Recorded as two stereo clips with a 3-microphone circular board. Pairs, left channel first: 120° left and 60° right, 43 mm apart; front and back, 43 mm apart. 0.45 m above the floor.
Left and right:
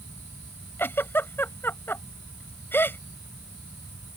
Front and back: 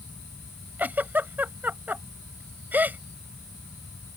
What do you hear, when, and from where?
0.8 s a giggle: 140° left